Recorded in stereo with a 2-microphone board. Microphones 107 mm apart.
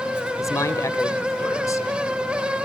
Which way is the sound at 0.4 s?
30° left (ahead or behind).